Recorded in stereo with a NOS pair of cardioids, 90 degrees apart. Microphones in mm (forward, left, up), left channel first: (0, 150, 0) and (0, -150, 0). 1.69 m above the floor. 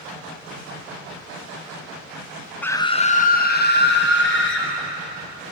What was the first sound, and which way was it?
A scream, 5° left.